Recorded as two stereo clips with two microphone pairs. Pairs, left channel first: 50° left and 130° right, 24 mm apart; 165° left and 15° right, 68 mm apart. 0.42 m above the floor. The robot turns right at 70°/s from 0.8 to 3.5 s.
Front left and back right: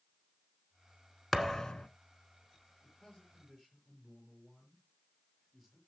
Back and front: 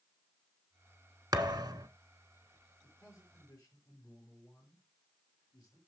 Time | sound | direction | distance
1.3 | a thud | 40° right | 1.0 m
2.8 | a man speaking | 95° left | 9 m